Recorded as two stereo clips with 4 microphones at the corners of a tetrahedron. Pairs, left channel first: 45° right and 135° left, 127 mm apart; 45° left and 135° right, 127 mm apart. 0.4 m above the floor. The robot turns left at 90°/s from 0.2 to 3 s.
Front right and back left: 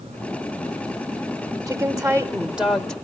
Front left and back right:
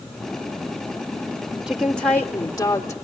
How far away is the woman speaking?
About 0.9 m.